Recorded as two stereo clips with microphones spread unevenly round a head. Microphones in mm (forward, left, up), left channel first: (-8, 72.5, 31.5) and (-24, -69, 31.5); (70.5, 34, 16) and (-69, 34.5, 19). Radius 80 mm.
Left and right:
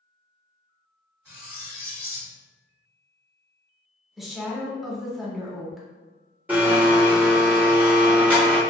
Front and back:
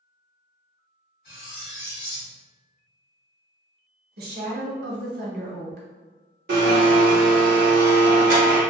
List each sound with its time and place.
1.2 s cutlery clinking: 25° right, 1.6 m
4.2 s a woman speaking: 175° left, 0.8 m
6.5 s a blender: 175° right, 0.7 m